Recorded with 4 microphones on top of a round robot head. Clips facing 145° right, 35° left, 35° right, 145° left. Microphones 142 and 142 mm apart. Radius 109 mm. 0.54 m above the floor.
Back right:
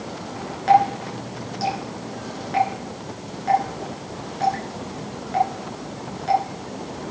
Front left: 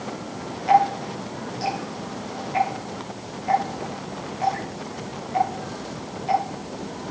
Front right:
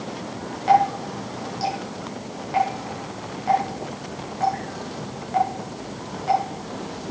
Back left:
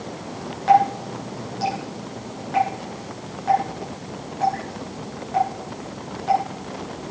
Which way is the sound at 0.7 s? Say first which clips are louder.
Back right 1 dB, back left 1 dB; 115° right.